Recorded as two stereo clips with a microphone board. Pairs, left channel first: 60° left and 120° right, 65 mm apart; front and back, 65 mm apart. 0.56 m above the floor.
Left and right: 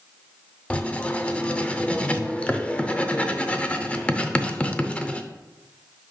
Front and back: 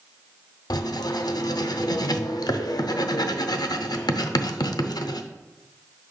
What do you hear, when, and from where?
0.7 s writing: 10° right, 0.5 m